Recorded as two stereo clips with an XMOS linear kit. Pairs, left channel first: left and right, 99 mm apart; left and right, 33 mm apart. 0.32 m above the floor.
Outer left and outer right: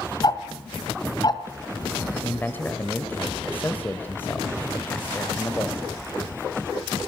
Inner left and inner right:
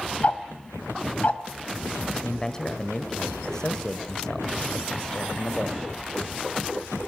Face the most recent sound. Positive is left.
turn(degrees=20)  # may be behind; listen again after turning